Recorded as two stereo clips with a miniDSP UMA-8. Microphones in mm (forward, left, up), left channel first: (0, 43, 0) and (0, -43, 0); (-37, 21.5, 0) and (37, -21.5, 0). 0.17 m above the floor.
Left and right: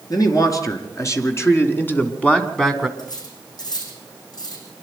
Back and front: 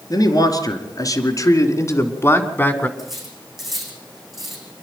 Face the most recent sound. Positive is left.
turn(degrees=60)